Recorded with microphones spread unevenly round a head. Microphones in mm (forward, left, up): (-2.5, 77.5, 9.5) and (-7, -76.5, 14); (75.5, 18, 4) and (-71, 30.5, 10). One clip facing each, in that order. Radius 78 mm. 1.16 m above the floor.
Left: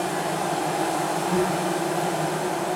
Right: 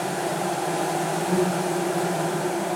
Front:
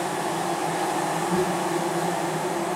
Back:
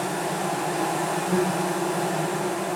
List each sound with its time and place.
0.0 s an insect: 150° right, 0.7 m